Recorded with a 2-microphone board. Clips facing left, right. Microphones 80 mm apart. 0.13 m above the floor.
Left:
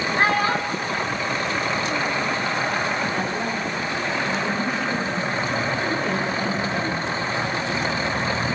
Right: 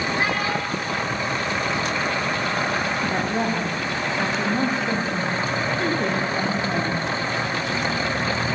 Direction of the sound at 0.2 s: 50° left (ahead or behind).